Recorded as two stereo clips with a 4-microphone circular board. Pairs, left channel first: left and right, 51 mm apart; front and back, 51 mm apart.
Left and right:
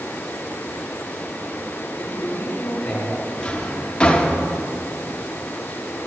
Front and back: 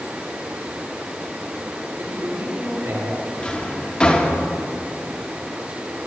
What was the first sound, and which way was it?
A man speaking, 165° left.